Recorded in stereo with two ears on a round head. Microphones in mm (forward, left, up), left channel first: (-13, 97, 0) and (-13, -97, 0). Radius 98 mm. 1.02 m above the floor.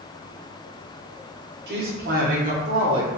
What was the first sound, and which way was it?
A woman speaking, 50° right (ahead or behind).